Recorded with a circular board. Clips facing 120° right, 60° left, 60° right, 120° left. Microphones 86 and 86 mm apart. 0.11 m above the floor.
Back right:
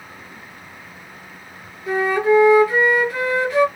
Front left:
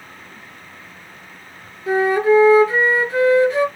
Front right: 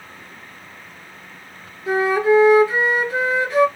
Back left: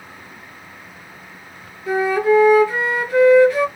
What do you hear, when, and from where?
1.9 s a flute: straight ahead, 1.2 m